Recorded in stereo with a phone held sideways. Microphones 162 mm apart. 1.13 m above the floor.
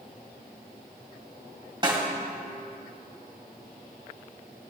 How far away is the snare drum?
About 1.4 m.